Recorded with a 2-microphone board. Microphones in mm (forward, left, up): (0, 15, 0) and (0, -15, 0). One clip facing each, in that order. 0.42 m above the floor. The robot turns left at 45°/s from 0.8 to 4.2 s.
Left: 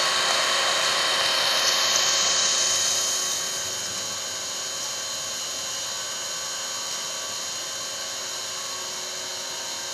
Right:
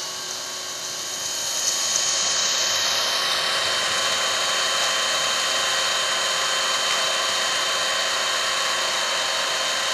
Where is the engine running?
70° left, 0.9 m; by 9.9 s 85° right, 0.9 m.